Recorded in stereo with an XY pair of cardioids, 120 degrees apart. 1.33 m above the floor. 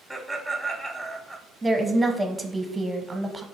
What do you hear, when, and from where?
0.1 s laughter: 5° left, 0.7 m
1.6 s a woman speaking: 15° right, 0.9 m